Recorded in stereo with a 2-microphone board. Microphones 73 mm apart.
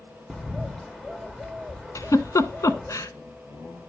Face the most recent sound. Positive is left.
turn(degrees=50)  # may be behind; listen again after turning